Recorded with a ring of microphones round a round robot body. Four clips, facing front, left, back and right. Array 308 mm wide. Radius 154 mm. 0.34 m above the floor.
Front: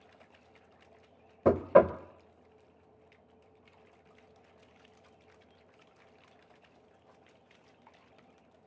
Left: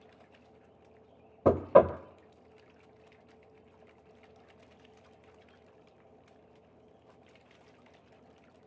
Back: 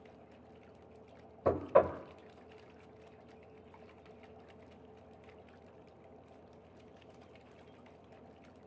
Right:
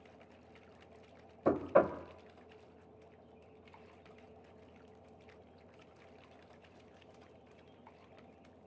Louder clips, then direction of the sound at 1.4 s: Left 7 dB, front 5 dB; 55° left.